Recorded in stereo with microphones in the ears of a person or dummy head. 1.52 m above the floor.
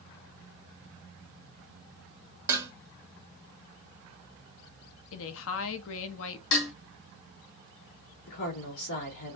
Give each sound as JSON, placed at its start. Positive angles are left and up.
{"t": 2.5, "sound": "dishes clattering", "side_deg": -20, "distance_m": 1.0}
{"t": 5.1, "sound": "a woman speaking", "side_deg": 70, "distance_m": 0.7}
{"t": 6.5, "sound": "dishes clattering", "side_deg": 60, "distance_m": 2.0}
{"t": 8.3, "sound": "a woman speaking", "side_deg": 70, "distance_m": 3.5}